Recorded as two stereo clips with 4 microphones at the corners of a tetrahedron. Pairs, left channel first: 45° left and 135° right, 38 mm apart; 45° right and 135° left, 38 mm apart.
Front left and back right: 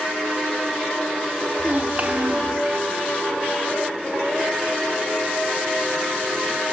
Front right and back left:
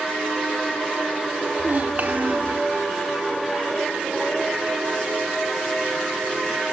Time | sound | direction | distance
1.6 | a child speaking | straight behind | 1.0 m